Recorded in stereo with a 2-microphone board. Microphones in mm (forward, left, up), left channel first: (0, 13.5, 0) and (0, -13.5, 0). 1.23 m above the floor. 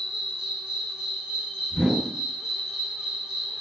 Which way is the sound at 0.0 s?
35° right (ahead or behind).